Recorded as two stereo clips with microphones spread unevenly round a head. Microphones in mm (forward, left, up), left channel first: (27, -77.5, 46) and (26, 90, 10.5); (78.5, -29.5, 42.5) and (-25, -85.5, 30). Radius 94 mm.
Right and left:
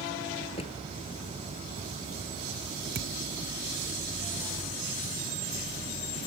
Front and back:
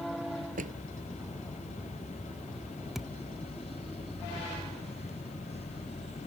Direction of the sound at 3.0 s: 110° left.